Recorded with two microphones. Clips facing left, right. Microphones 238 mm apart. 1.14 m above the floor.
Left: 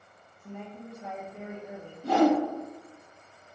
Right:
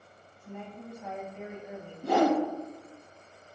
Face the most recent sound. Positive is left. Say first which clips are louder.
# left 2 dB
turn(degrees=-50)  # may be behind; listen again after turning